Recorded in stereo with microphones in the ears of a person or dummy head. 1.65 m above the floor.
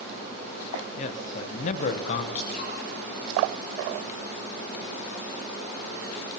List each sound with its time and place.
1.0 s a man speaking: 40° left (ahead or behind), 1.0 m
2.4 s dripping: 50° left (ahead or behind), 6.5 m